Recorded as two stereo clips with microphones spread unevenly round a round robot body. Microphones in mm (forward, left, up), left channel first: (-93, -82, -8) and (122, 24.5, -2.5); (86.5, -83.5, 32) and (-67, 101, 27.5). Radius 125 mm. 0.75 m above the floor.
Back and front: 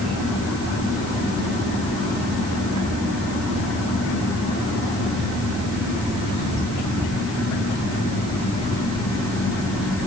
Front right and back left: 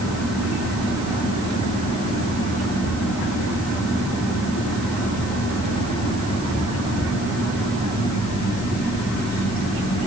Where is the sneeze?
No sneeze in this recording.